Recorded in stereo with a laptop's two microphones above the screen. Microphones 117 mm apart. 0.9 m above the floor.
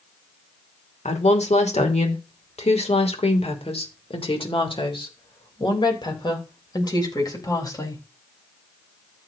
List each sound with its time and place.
1.1 s a woman speaking: 80° left, 2.5 m; by 8.0 s 30° left (ahead or behind), 4.5 m